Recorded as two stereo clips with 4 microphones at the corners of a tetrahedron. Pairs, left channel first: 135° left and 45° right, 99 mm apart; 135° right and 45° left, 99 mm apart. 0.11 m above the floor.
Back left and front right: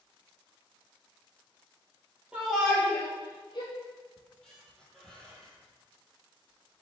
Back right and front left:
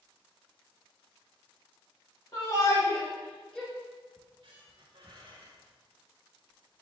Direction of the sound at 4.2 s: 50° left.